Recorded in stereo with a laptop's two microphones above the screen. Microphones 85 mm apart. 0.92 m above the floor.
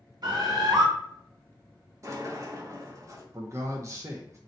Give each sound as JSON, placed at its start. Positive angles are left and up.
{"t": 0.2, "sound": "a bird", "side_deg": -60, "distance_m": 1.2}
{"t": 2.0, "sound": "a sliding door", "side_deg": -35, "distance_m": 0.7}
{"t": 3.3, "sound": "a man speaking", "side_deg": -35, "distance_m": 0.5}